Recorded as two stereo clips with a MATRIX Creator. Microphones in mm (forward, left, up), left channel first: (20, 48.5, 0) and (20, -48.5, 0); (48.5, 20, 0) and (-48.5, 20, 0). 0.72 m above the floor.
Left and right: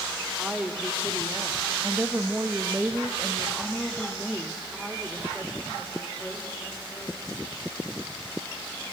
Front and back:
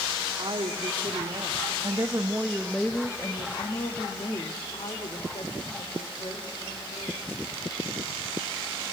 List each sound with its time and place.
0.4 s a woman speaking: 165° right, 1.8 m; by 7.3 s straight ahead, 3.5 m